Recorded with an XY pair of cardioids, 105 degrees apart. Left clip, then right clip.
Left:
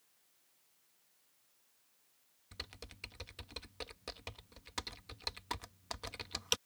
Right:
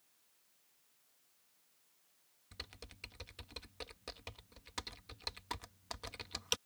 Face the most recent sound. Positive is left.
turn(degrees=15)